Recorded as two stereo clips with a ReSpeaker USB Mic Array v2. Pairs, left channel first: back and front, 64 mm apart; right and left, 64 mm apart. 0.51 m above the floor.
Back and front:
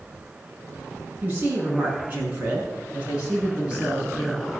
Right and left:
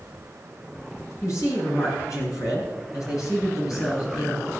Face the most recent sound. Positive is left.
turn(degrees=-70)